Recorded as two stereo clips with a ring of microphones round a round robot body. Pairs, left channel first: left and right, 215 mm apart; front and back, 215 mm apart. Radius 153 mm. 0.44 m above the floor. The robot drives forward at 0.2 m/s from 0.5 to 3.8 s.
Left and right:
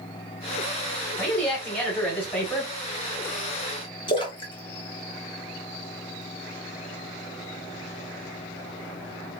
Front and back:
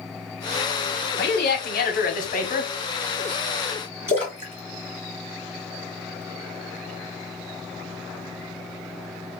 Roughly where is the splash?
Behind left.